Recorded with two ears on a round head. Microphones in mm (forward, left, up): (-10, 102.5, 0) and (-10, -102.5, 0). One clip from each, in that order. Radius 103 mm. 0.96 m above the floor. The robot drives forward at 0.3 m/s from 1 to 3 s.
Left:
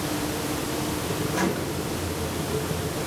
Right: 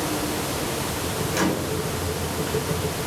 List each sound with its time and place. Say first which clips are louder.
1.3 s a microwave: right 4 dB; 55° right (ahead or behind), 2.5 m